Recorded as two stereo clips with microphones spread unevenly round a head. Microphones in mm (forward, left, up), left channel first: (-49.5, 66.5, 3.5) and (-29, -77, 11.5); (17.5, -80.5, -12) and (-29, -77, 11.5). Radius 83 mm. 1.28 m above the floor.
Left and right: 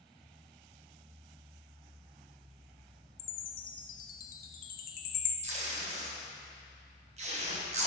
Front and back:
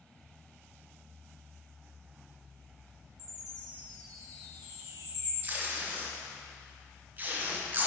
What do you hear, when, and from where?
3.2 s a chime: 120° left, 0.7 m
5.4 s tape being pulled: 125° right, 1.2 m